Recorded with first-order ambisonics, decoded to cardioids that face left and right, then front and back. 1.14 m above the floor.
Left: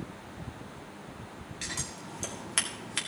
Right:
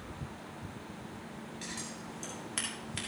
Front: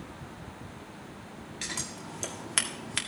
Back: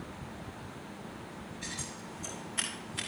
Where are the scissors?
25° left, 1.8 m.